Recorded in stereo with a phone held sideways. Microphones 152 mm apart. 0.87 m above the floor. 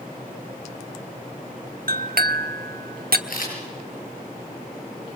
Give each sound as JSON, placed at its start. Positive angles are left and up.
{"t": 1.9, "sound": "a clink", "side_deg": -85, "distance_m": 1.2}
{"t": 3.3, "sound": "a camera shutter", "side_deg": 70, "distance_m": 7.5}